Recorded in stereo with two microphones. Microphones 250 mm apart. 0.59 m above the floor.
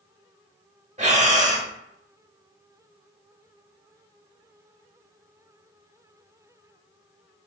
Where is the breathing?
30° right (ahead or behind), 0.7 m.